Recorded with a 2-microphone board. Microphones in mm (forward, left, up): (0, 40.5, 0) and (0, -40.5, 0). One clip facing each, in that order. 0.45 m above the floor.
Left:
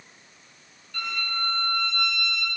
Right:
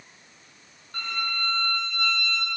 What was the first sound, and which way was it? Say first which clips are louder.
A violin: even; 45° right (ahead or behind).